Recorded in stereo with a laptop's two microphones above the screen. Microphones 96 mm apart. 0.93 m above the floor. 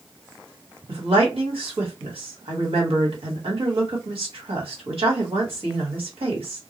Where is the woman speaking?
75° right (ahead or behind), 1.4 m.